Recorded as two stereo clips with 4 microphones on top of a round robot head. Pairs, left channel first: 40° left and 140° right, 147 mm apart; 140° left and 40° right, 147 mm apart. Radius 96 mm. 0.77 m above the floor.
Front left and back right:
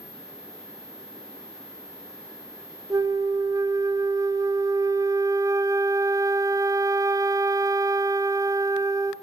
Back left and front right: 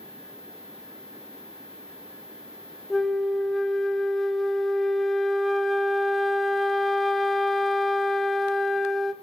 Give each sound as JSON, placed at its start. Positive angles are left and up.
{"t": 2.9, "sound": "a flute", "azimuth_deg": -130, "distance_m": 0.6}